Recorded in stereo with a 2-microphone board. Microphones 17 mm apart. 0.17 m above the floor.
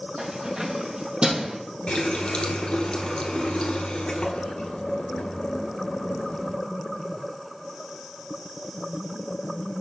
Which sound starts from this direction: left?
A running tap, at 1.9 s.